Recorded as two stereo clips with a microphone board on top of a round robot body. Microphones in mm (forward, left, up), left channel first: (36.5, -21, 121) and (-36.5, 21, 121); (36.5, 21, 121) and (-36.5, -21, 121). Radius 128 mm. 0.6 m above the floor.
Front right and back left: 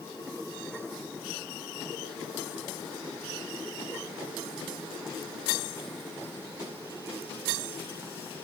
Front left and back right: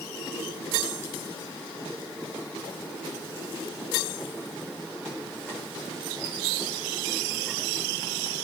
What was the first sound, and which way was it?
Only background noise.